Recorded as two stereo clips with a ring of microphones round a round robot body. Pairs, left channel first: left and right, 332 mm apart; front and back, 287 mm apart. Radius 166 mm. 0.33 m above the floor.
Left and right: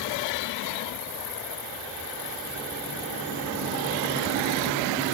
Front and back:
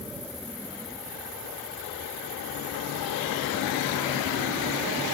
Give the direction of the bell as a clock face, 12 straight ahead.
I don't hear a bell.